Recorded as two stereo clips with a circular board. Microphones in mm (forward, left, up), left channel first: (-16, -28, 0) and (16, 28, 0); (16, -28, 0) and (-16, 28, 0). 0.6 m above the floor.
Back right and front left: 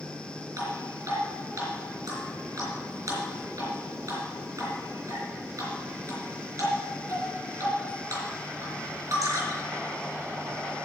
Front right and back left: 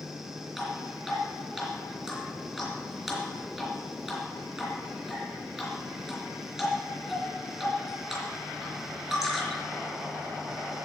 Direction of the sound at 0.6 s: 35° left.